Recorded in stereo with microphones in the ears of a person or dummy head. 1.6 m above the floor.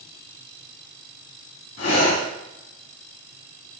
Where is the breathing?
45° left (ahead or behind), 2.5 m.